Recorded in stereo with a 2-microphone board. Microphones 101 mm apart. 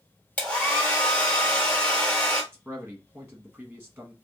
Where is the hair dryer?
10° left (ahead or behind), 1.3 m.